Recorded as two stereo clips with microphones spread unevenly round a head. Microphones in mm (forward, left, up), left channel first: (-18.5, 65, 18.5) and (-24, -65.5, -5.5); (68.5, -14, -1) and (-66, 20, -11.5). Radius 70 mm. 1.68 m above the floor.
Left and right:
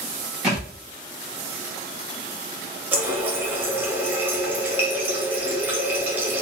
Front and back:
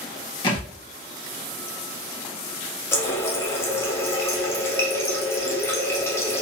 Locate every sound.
0.4 s a thud: 5° left, 1.1 m
2.9 s a running tap: 10° right, 0.6 m